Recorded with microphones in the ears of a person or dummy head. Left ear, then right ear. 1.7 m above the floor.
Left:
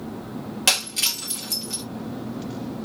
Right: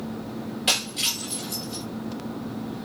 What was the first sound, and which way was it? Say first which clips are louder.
Breaking glass: left 2 dB; 40° left (ahead or behind).